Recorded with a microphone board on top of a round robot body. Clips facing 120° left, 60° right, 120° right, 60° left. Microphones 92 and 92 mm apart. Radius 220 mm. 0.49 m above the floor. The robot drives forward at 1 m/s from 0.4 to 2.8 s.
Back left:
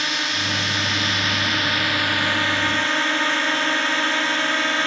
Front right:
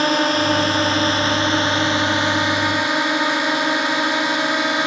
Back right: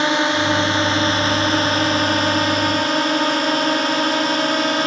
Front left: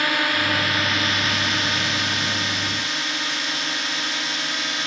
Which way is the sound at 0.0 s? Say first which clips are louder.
Front right 9 dB, back right 5 dB; 65° right.